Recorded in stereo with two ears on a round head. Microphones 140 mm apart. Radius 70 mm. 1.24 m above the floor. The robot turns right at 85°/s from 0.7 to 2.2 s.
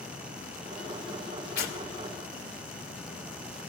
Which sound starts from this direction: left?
Tearing paper, at 1.6 s.